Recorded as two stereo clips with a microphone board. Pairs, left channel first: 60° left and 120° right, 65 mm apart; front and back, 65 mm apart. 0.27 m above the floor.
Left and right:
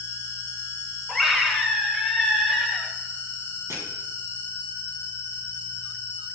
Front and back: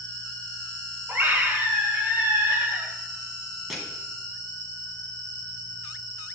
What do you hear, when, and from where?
0.0 s an insect: 60° right, 1.5 m
1.1 s a scream: 150° left, 1.3 m
3.7 s crushing: 90° right, 2.5 m